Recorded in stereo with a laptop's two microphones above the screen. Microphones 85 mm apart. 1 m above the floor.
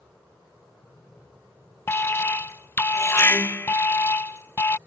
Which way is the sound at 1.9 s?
30° left (ahead or behind).